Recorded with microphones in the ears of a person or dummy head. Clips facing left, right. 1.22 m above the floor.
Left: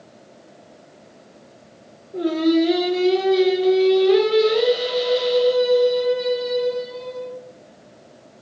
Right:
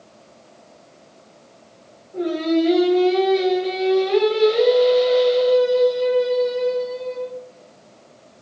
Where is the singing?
40° left (ahead or behind), 4.5 m.